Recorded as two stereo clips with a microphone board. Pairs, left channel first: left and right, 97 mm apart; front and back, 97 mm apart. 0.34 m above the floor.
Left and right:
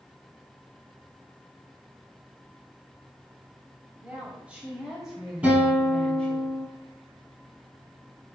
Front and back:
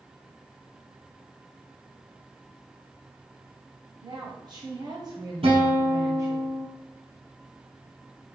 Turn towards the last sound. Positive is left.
turn(degrees=-165)